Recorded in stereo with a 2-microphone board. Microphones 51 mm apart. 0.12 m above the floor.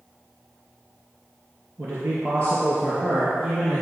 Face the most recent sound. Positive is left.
turn(degrees=-35)  # may be behind; listen again after turning